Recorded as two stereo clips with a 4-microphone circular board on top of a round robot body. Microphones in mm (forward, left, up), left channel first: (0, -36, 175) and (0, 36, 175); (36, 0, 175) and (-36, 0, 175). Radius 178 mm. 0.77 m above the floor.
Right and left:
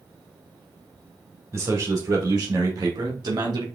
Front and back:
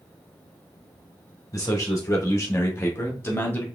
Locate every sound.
1.5 s a man speaking: 45° left, 3 m; by 3.6 s 65° left, 2.5 m